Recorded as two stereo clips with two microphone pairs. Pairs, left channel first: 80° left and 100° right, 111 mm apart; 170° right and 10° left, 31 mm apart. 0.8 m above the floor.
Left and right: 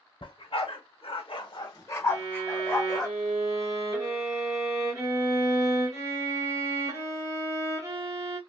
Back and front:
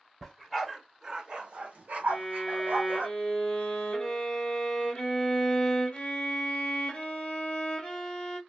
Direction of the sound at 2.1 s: 130° right.